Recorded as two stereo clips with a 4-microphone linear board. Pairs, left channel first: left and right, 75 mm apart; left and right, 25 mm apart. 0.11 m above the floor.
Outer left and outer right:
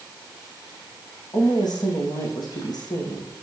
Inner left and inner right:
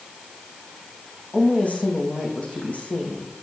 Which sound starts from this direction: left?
A woman speaking, at 1.3 s.